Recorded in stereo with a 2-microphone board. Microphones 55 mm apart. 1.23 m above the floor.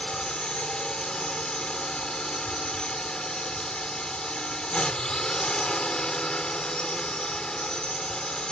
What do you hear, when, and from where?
0.0 s a drone: 15° left (ahead or behind)